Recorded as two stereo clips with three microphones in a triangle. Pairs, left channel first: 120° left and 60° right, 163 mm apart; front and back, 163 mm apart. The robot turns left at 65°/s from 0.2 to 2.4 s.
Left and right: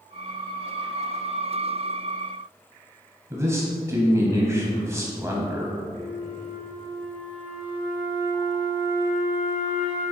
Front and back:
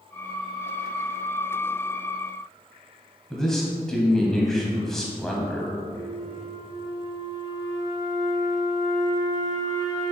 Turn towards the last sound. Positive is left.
turn(degrees=-135)